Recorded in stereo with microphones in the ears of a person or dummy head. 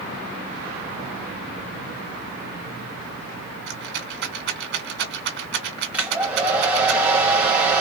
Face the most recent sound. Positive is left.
turn(degrees=-5)  # may be behind; listen again after turning